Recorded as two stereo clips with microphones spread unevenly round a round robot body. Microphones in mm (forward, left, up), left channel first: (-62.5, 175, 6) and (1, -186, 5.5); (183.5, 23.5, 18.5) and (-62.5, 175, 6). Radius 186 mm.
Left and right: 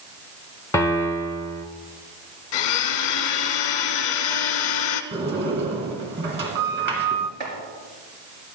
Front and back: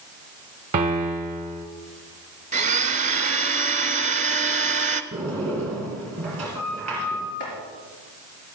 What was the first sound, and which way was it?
A piano, 175° left.